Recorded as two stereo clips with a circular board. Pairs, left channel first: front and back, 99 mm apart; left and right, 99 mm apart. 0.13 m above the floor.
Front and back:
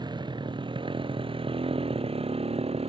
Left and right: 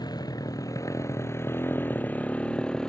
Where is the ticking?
I don't hear ticking.